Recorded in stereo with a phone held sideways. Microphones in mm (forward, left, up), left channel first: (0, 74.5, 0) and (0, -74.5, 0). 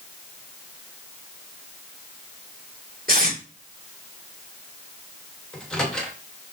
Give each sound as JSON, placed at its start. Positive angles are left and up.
{"t": 3.1, "sound": "tape being pulled", "side_deg": -85, "distance_m": 3.5}
{"t": 5.5, "sound": "a microwave", "side_deg": 5, "distance_m": 2.0}